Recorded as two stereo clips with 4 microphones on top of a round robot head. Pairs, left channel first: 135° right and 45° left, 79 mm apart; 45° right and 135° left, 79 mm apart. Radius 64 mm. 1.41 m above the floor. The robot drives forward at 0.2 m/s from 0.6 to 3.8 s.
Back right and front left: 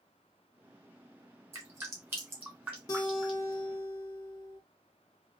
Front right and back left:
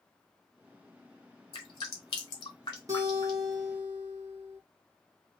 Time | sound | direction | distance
1.5 | dripping | 10° right | 0.9 m
2.9 | a guitar | straight behind | 1.4 m